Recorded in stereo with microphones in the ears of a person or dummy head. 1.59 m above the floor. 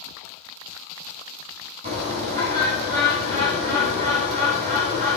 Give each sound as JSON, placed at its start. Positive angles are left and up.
{"t": 1.8, "sound": "a bird", "side_deg": -35, "distance_m": 5.5}